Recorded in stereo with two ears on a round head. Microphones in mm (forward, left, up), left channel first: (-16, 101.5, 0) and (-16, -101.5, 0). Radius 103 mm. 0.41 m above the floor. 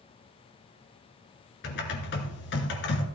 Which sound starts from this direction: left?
Typing on a keyboard, at 1.6 s.